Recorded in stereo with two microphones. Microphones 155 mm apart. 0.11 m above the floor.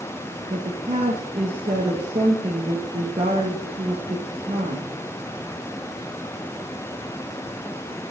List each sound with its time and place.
0.5 s a woman speaking: 40° right (ahead or behind), 3 m